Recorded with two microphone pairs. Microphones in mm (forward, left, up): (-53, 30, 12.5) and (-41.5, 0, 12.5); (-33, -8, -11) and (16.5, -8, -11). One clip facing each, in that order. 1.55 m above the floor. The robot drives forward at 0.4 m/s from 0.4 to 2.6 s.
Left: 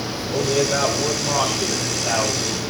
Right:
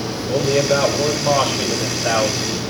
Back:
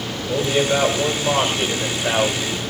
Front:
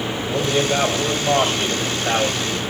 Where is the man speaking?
120° right, 7 m; by 2.6 s 125° right, 7.5 m.